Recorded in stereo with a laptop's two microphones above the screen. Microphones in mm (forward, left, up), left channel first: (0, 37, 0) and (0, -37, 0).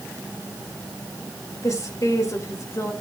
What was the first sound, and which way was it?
A woman speaking, 50° left (ahead or behind).